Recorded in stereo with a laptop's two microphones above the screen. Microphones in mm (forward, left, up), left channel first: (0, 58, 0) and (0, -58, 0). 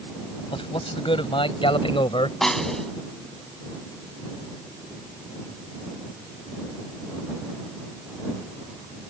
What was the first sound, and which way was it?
A man speaking, 50° left (ahead or behind).